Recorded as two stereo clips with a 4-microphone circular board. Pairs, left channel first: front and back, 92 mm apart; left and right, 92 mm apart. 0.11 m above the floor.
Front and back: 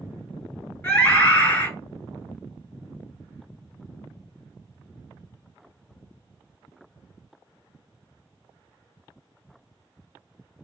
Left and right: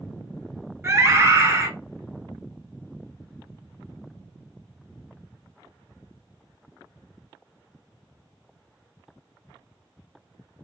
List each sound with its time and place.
0.8 s a scream: 55° right, 1.3 m